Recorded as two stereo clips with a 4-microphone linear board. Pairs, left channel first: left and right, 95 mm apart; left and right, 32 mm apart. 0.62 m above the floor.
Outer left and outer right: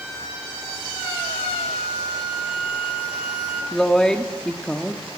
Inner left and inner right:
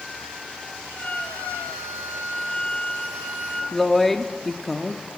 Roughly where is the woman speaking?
Centre.